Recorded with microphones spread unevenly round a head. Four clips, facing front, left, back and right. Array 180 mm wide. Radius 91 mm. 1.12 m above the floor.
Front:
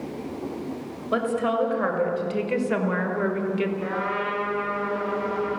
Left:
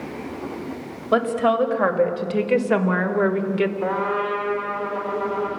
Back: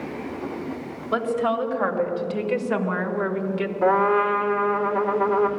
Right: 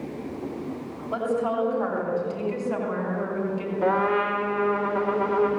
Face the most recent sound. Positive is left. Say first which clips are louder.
# right 1 dB, back 8 dB
turn(degrees=-165)